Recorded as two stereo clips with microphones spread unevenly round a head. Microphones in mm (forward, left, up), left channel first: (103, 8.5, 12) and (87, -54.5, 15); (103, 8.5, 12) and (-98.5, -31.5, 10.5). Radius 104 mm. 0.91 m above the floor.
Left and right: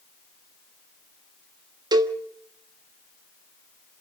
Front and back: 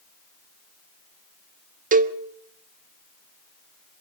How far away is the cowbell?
About 1.2 m.